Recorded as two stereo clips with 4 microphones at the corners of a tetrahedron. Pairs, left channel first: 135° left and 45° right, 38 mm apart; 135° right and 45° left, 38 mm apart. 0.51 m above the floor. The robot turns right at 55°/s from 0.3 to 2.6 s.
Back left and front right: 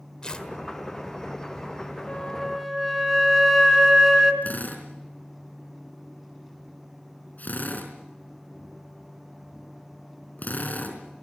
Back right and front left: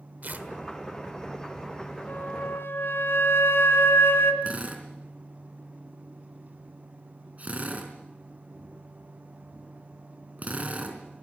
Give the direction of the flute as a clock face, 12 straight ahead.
5 o'clock.